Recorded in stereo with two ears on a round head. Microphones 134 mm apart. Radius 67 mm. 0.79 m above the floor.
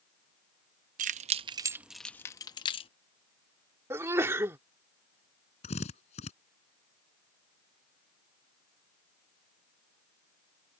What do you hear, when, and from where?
1.0 s keys jangling: 55° right (ahead or behind); by 2.9 s 35° left (ahead or behind)
3.9 s a sneeze: 15° right (ahead or behind)
5.6 s a drill: 45° left (ahead or behind)